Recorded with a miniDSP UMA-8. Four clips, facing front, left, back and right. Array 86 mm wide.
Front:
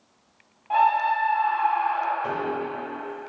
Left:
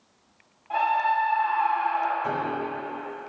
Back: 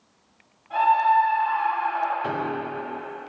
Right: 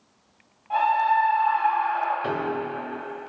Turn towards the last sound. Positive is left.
turn(degrees=-110)